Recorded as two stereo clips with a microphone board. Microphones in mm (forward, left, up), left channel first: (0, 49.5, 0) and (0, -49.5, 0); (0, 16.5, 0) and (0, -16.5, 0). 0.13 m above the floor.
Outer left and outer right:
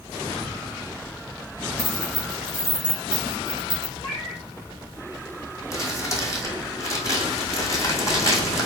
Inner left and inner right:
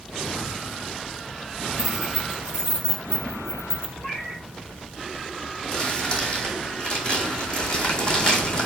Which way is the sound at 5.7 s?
35° left (ahead or behind).